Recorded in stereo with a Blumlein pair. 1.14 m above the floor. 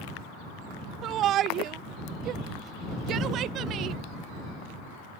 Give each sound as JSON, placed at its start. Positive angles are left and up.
{"t": 1.0, "sound": "a shout", "azimuth_deg": -30}